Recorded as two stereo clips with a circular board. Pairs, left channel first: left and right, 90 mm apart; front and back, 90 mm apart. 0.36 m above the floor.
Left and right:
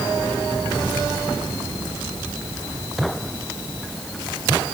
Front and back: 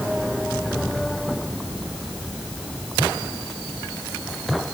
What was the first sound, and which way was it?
Only background noise.